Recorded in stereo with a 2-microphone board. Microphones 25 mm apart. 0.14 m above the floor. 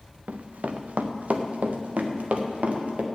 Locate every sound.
0.3 s running footsteps: 80° right, 1.0 m; by 3.0 s 75° right (ahead or behind), 2 m